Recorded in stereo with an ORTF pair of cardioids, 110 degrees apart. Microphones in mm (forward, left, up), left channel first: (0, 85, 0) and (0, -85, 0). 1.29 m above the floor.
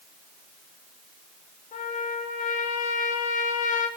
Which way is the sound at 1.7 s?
50° left.